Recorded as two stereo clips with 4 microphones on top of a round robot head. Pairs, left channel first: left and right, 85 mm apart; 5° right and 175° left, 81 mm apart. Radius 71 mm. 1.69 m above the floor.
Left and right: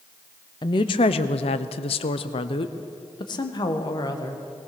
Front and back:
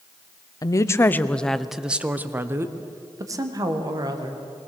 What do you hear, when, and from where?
0.6 s a woman speaking: 40° left, 0.9 m; by 4.4 s 135° left, 2 m